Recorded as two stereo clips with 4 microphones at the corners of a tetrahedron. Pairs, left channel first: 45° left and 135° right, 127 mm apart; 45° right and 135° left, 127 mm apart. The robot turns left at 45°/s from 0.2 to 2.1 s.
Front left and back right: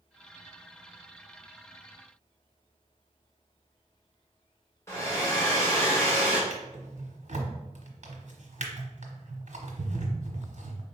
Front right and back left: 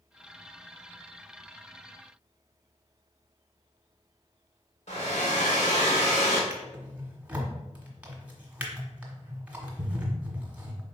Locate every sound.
4.9 s a hair dryer: 20° right, 2.5 m
6.5 s a drawer: 145° right, 1.3 m